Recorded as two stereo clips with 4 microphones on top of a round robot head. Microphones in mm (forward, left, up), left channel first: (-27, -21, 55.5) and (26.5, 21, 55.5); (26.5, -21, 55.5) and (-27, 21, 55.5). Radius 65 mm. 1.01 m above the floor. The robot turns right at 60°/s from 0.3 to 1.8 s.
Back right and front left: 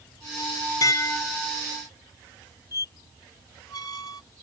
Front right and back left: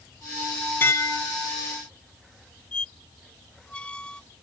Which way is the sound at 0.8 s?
100° right.